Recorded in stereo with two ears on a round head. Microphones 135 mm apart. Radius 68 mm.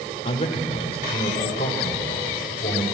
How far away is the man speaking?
About 2.5 m.